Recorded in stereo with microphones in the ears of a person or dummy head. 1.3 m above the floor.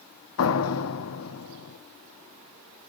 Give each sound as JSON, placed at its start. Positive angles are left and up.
{"t": 0.4, "sound": "a door slam", "side_deg": 80, "distance_m": 1.5}